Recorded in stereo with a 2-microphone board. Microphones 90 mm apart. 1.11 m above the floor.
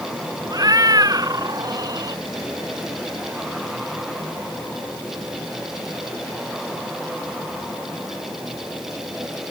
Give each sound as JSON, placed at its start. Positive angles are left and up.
{"t": 0.5, "sound": "a cat meowing", "side_deg": -45}